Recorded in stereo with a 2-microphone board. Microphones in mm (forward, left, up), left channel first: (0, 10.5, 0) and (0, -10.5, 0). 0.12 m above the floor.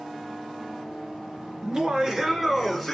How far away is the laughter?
About 1.8 m.